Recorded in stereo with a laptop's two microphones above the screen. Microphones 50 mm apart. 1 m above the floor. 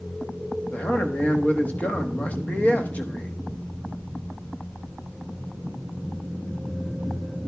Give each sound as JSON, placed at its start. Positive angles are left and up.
{"t": 0.7, "sound": "a man speaking", "side_deg": 30, "distance_m": 1.2}